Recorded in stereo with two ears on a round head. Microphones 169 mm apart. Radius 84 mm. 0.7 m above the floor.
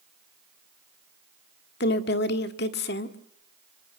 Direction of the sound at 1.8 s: 60° left (ahead or behind).